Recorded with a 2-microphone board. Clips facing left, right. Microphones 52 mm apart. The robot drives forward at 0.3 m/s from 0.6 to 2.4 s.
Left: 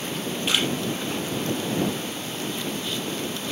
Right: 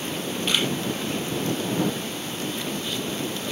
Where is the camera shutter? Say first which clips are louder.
Even; 10° left (ahead or behind), 5 m.